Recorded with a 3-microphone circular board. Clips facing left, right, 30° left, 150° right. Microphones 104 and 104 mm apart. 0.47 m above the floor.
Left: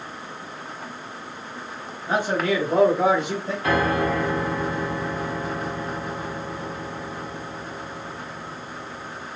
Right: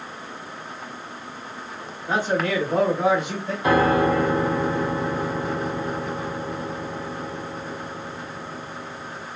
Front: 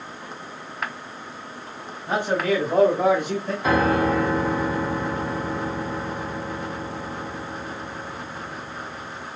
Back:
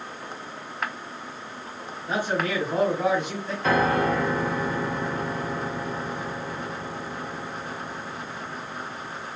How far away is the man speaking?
About 2.5 m.